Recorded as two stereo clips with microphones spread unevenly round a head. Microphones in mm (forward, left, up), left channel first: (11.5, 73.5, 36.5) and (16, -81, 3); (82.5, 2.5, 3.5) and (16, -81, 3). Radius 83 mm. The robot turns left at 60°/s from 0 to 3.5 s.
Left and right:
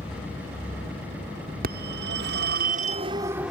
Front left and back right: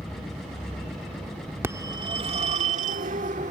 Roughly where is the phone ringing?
Ahead right.